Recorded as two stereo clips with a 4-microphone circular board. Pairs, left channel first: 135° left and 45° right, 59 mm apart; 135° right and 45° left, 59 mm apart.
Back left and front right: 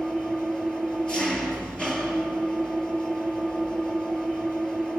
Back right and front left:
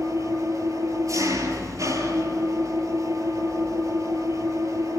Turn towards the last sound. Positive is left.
turn(degrees=55)